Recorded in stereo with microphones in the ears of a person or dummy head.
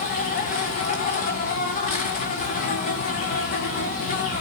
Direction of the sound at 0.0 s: 40° left (ahead or behind).